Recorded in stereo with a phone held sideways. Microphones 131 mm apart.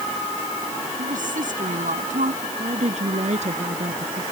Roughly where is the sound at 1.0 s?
Right.